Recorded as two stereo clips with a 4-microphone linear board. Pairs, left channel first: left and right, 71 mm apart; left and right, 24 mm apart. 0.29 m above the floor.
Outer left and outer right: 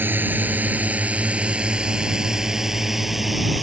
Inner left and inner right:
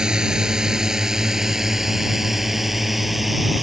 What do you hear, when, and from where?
0.0 s a drone: 30° right (ahead or behind); by 3.6 s centre (ahead or behind)